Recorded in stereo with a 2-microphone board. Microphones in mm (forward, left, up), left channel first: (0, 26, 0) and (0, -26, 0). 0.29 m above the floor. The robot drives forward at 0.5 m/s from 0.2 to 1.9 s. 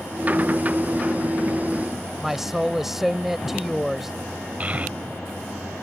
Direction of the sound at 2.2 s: 5° right (ahead or behind).